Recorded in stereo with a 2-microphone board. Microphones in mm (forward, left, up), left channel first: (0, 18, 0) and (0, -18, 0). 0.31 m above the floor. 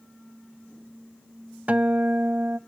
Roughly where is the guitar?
Right.